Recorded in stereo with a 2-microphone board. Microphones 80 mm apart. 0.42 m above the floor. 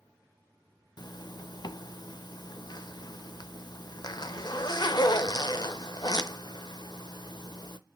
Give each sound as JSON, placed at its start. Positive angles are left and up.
{"t": 1.0, "sound": "a zipper", "side_deg": 60, "distance_m": 0.5}